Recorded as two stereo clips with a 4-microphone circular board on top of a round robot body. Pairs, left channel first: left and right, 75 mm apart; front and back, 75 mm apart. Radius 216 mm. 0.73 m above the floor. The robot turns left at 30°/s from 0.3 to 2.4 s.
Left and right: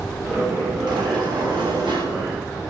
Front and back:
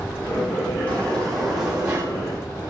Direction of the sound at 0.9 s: 70° right.